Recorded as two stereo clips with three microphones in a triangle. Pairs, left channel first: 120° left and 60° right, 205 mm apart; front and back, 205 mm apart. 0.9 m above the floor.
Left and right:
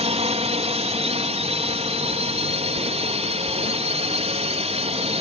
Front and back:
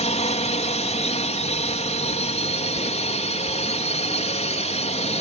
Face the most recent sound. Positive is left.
turn(degrees=-25)